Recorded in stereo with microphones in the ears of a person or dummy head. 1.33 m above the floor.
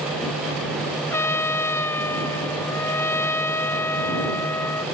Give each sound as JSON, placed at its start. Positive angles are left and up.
{"t": 1.1, "sound": "a trumpet", "side_deg": 10}